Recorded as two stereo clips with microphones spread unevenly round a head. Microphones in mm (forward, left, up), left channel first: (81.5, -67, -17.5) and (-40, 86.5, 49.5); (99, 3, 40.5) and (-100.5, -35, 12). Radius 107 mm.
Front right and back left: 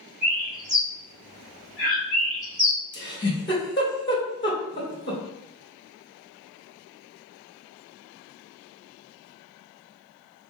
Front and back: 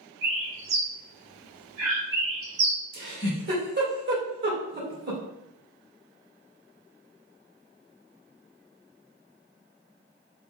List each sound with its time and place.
0.2 s a bird: 150° right, 2.5 m
2.9 s a giggle: 135° right, 2 m